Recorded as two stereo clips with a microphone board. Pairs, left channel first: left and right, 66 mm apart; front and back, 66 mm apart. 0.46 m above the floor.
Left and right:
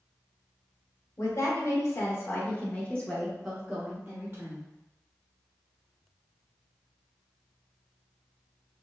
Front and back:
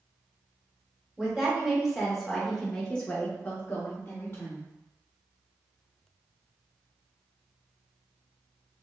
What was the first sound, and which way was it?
A woman speaking, 100° left.